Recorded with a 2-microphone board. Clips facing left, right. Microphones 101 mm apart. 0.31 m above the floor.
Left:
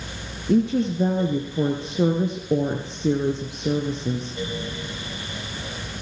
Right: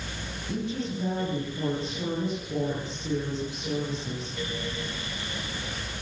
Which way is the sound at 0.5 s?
65° left (ahead or behind).